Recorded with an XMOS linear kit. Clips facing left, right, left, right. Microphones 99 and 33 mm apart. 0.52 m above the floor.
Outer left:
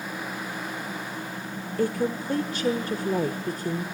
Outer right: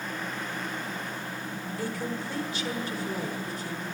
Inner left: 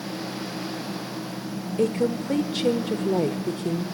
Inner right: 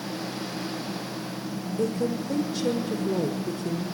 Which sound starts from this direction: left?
A woman speaking, at 1.8 s.